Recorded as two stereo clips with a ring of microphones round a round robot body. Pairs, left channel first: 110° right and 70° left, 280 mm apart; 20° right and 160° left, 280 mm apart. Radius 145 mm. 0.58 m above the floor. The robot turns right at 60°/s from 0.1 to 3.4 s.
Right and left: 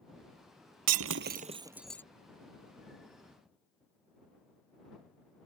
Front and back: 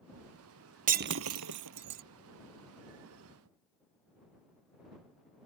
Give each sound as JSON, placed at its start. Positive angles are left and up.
{"t": 0.9, "sound": "breaking glass", "azimuth_deg": 95}